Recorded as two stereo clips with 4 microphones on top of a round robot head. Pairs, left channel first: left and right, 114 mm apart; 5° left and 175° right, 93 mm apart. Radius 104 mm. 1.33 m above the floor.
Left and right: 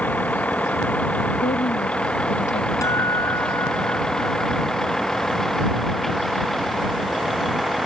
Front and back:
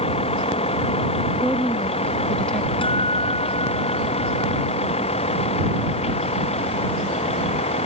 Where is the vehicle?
15° left; by 7.9 s straight ahead.